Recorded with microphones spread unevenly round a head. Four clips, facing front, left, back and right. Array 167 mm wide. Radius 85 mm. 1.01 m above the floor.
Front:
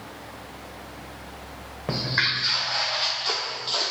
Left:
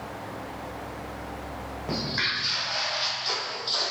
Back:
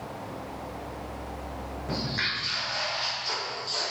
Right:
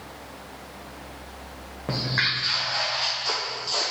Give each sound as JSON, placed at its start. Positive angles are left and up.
{"t": 1.9, "sound": "footsteps", "azimuth_deg": -30, "distance_m": 2.5}